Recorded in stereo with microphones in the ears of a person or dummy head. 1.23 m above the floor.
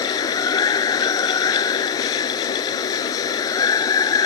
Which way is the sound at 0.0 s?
20° left (ahead or behind).